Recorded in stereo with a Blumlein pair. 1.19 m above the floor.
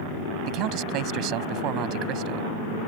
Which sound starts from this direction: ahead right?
A man speaking, at 0.5 s.